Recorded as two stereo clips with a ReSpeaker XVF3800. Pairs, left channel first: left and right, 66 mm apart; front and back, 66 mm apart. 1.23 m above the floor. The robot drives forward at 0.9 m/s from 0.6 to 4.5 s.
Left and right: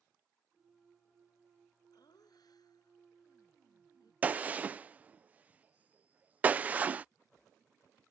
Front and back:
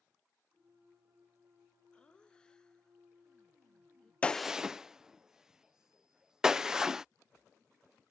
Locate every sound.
1.9 s laughter: 75° left; by 4.1 s 85° left
4.2 s a gunshot: 50° right; by 7.0 s 115° right